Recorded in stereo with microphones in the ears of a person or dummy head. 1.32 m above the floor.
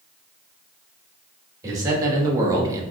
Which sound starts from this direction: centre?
A man speaking, at 1.6 s.